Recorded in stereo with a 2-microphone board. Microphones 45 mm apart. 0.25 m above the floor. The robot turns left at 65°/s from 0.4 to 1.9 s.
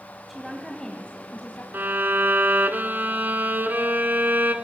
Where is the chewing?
I don't hear chewing.